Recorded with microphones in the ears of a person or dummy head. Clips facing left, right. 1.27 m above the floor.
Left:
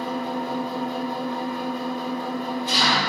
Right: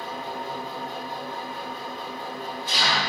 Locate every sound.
0.0 s an engine running: 40° left (ahead or behind), 1.3 m